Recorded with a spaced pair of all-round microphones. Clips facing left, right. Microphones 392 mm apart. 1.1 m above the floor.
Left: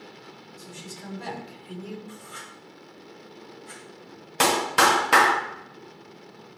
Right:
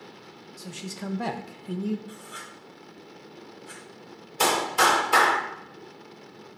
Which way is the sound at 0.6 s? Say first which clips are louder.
Right 6 dB; 80° right.